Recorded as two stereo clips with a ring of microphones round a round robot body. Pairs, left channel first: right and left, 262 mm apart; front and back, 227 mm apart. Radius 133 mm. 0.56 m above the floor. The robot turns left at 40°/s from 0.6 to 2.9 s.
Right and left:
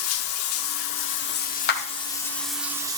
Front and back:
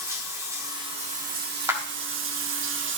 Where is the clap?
105° right, 1.1 m; by 1.8 s 110° right, 1.1 m.